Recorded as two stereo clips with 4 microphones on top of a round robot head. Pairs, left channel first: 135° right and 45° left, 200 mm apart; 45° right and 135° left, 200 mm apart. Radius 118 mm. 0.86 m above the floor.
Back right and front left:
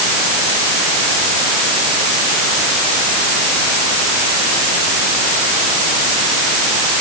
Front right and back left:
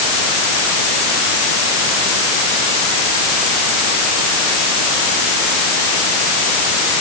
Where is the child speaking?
No child speaking in this recording.